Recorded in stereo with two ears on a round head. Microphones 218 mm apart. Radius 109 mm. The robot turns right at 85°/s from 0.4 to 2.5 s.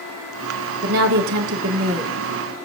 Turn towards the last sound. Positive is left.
turn(degrees=20)